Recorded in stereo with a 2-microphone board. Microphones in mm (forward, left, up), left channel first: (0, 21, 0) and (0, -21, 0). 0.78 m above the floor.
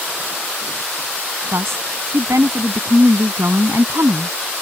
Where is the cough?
I don't hear a cough.